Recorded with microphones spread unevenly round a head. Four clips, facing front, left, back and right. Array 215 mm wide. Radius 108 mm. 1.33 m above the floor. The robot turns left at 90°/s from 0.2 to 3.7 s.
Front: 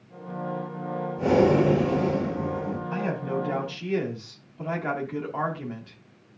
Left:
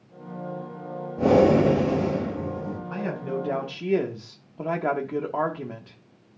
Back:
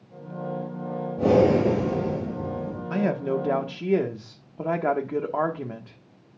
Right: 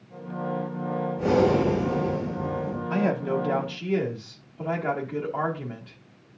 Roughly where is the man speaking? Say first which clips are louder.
Right 6 dB, back 6 dB; behind right.